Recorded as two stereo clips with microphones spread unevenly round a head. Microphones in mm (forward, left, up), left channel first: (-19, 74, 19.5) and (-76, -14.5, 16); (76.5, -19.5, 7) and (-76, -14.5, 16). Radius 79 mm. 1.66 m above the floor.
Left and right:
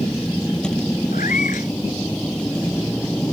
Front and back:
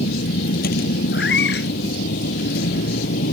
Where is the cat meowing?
25° left.